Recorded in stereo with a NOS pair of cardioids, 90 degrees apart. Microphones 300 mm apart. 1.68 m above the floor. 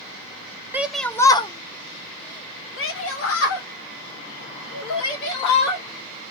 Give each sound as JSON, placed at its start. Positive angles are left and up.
{"t": 0.7, "sound": "a shout", "azimuth_deg": -5, "distance_m": 1.1}